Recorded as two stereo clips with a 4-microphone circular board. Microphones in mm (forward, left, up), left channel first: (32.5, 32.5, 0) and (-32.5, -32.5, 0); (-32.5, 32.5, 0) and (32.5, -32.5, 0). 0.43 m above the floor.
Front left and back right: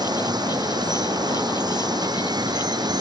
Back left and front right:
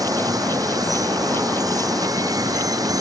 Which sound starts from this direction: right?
Running water, at 0.0 s.